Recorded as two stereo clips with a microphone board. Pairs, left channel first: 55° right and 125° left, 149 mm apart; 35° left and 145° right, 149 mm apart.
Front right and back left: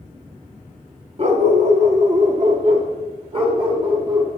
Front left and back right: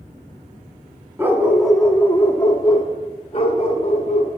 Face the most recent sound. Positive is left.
turn(degrees=70)